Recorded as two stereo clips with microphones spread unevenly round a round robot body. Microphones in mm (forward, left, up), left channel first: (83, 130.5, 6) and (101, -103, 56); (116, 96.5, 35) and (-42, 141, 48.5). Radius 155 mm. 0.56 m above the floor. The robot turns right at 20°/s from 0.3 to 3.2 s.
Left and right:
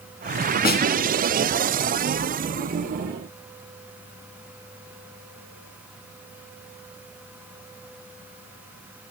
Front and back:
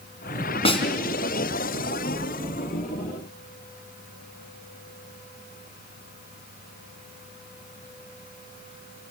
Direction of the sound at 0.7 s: 40° left.